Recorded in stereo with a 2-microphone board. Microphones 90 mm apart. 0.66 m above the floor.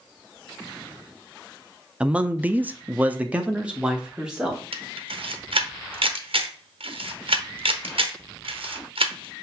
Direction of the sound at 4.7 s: 80° right.